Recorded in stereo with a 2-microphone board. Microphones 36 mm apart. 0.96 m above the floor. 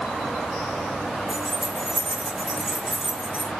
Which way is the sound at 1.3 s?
30° right (ahead or behind).